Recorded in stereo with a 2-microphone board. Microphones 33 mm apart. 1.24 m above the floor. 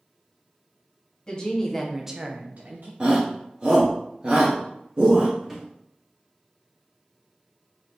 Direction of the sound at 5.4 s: 10° right (ahead or behind).